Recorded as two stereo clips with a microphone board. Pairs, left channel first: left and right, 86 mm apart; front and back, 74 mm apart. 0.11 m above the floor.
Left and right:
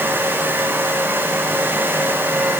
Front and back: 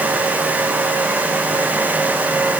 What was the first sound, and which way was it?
Only background noise.